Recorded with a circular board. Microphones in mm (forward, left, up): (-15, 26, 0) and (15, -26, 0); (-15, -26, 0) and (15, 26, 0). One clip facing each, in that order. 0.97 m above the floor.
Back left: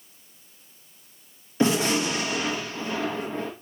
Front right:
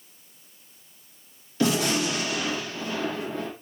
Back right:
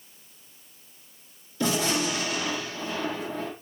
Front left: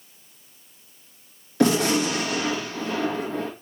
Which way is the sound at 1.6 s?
60° left.